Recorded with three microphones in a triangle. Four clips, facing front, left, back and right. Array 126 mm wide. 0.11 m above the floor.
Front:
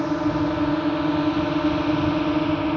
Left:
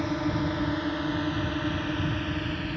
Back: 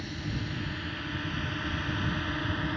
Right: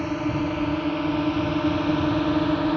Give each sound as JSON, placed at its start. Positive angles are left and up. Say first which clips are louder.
{"t": 0.0, "sound": "a drone", "louder": "right 3 dB, front 16 dB", "azimuth_deg": -5}